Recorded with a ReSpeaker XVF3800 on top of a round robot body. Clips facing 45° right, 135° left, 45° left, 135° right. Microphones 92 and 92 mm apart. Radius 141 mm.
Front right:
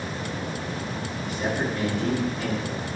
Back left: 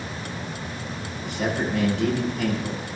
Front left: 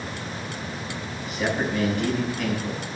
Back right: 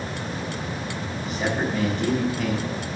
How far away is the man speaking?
About 6.5 m.